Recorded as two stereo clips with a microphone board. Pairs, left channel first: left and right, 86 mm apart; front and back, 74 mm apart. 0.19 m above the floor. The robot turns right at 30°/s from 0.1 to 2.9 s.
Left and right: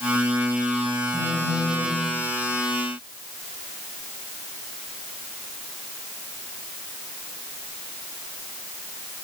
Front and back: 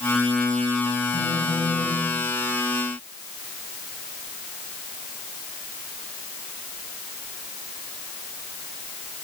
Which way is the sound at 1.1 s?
10° left.